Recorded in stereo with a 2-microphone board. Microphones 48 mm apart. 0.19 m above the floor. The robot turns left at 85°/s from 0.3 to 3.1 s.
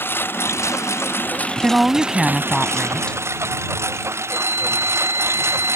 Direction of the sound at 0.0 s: 130° left.